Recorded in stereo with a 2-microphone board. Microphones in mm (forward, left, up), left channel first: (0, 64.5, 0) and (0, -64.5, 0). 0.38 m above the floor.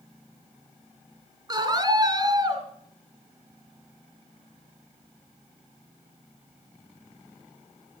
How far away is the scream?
About 3.5 m.